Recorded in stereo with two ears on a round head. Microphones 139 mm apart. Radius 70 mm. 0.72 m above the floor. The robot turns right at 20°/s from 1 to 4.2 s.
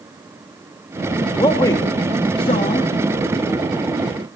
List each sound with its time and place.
1.4 s a man speaking: 20° left (ahead or behind), 1.3 m; by 2.9 s 35° left (ahead or behind), 1.3 m